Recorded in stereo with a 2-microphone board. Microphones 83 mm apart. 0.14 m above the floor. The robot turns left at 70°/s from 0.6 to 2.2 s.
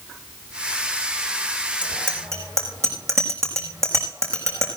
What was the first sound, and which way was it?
A bicycle bell, 15° right (ahead or behind).